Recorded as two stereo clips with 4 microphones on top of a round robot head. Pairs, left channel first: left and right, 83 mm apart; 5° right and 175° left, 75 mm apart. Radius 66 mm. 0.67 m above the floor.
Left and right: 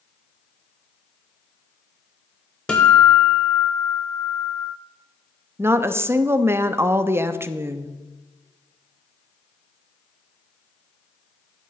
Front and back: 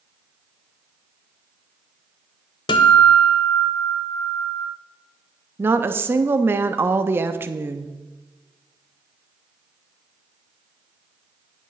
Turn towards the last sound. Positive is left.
turn(degrees=-140)